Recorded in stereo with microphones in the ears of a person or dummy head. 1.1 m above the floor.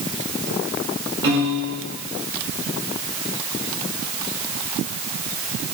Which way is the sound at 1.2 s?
25° right (ahead or behind).